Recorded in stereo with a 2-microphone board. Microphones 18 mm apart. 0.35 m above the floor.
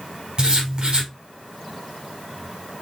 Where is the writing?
50° right (ahead or behind), 2.5 m.